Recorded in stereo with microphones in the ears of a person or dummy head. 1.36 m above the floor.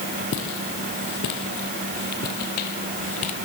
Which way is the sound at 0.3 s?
65° left (ahead or behind).